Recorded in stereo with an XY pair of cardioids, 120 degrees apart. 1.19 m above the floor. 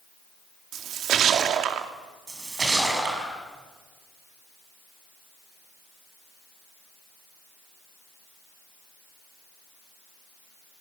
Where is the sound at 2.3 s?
25° right, 6.5 m.